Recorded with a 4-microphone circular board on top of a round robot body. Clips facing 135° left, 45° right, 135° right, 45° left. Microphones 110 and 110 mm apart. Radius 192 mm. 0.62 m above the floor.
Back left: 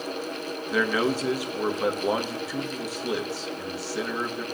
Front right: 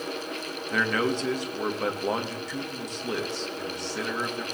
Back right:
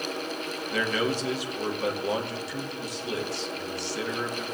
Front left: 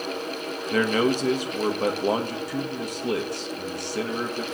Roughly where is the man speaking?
Ahead left.